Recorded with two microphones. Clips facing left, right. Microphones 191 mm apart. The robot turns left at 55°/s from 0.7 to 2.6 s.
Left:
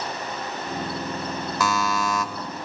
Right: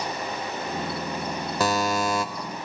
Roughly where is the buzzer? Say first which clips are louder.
Right 2 dB; right.